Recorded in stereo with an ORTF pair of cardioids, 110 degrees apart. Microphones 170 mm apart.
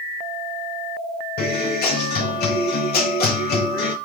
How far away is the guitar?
About 4 m.